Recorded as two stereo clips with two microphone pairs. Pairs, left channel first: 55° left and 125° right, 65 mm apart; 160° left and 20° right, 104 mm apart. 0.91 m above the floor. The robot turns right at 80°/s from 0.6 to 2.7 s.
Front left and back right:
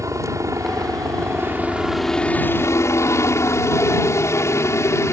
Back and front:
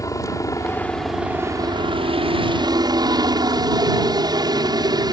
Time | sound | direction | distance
0.0 | a helicopter | 145° right | ?